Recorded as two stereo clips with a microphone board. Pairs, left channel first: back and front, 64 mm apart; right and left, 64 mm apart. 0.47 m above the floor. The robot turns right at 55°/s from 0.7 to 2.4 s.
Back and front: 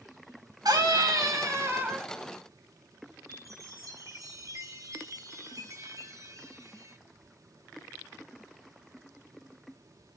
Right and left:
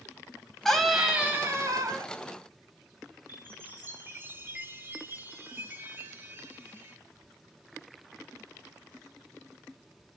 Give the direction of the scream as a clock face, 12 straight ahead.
12 o'clock.